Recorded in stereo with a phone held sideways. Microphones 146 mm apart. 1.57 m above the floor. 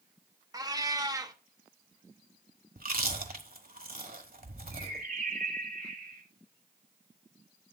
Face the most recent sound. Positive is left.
turn(degrees=-70)  # may be behind; listen again after turning